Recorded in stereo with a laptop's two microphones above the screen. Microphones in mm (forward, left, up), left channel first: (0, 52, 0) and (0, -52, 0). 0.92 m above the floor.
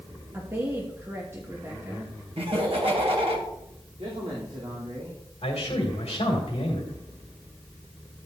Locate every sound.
0.3 s a woman speaking: 25° right (ahead or behind), 1.1 m
2.4 s laughter: 65° right (ahead or behind), 1.5 m
4.0 s a man speaking: 75° right (ahead or behind), 3 m
5.4 s a man speaking: 70° left (ahead or behind), 2.5 m